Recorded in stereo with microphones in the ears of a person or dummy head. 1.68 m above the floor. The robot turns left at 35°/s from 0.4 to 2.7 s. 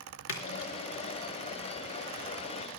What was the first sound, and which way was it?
A splash, 60° left (ahead or behind).